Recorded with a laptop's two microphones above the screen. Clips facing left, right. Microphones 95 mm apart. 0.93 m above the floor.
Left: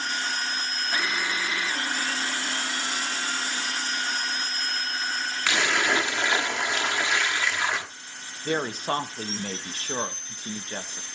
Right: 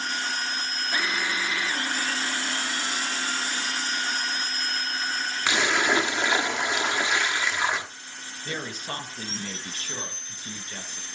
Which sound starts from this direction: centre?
A splash, at 5.5 s.